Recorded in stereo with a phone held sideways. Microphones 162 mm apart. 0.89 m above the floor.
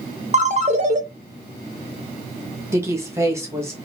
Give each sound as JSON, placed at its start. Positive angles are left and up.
{"t": 0.3, "sound": "a ringtone", "side_deg": -45, "distance_m": 0.6}
{"t": 2.7, "sound": "a woman speaking", "side_deg": -15, "distance_m": 0.9}